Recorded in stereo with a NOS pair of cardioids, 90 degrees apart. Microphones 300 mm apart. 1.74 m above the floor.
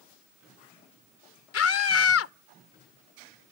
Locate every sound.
1.5 s a scream: 55° left